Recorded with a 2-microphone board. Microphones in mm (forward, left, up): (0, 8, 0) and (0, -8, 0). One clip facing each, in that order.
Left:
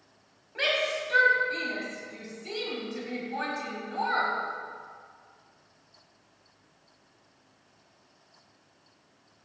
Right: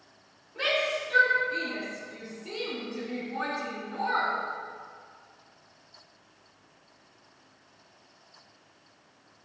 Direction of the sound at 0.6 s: 50° left (ahead or behind).